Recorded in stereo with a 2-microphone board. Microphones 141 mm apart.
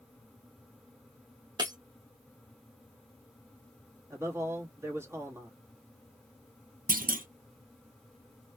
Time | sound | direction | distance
1.6 | breaking glass | 30° right (ahead or behind) | 1.0 m
4.1 | a man speaking | 20° right (ahead or behind) | 1.3 m
6.9 | a clunk | 85° right | 0.6 m